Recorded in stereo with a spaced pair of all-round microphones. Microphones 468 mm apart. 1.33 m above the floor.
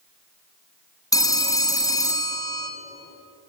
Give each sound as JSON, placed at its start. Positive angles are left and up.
{"t": 1.1, "sound": "a phone ringing", "side_deg": 5, "distance_m": 0.8}